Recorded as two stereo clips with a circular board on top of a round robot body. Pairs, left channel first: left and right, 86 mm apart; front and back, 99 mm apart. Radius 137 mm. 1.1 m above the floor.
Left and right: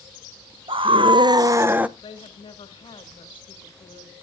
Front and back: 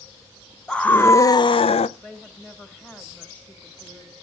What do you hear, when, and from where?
0.7 s a scream: 85° right, 0.8 m; by 1.9 s 15° right, 0.7 m
2.0 s a woman speaking: 75° left, 2 m